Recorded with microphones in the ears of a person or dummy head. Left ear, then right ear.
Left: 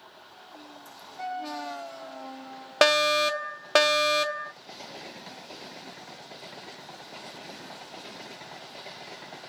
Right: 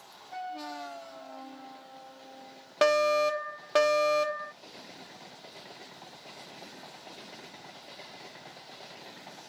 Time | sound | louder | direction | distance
2.8 | a fire alarm | left 3 dB | 25° left (ahead or behind) | 0.7 m